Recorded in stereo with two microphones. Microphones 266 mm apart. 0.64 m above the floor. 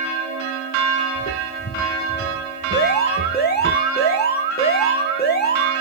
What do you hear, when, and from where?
1.1 s footsteps: 45° left (ahead or behind), 1.2 m; by 3.7 s 30° left (ahead or behind), 2.5 m
2.7 s an alarm: 35° left (ahead or behind), 1.4 m